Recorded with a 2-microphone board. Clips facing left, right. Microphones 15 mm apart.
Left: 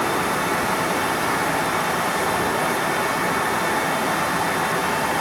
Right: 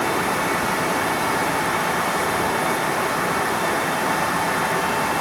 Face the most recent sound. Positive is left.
No sound to turn to.